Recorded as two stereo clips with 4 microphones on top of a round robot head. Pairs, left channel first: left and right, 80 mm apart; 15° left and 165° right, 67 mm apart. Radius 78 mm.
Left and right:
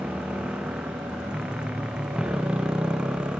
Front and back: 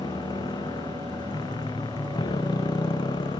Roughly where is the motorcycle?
Ahead.